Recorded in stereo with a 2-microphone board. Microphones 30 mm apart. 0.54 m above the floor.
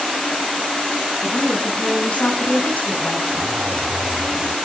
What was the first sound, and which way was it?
A woman speaking, 45° left (ahead or behind).